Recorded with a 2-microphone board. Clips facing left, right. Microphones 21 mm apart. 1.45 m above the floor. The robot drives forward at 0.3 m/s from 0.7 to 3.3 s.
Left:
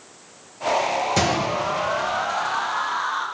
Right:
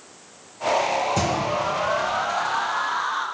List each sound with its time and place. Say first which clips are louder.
1.2 s a gunshot: left 2 dB; 40° left (ahead or behind), 1.6 m; by 2.2 s 35° left (ahead or behind), 1.9 m